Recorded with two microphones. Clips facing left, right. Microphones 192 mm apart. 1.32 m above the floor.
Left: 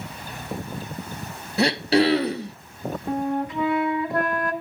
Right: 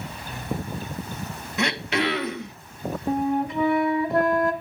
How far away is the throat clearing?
About 0.8 m.